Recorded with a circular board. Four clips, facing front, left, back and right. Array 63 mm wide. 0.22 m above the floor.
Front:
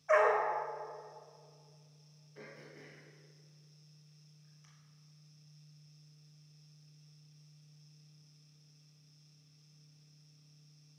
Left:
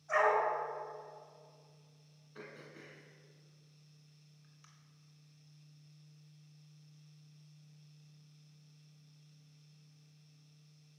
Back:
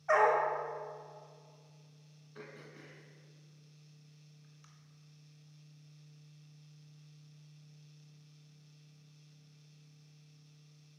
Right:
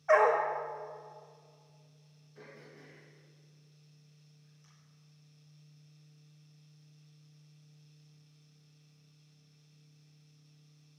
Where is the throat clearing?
135° left, 1.9 m.